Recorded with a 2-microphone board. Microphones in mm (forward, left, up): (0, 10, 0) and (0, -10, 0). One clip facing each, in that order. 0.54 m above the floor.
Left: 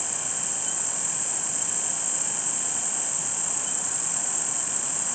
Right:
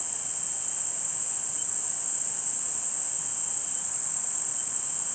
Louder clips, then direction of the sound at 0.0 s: Left 7 dB; 30° left (ahead or behind).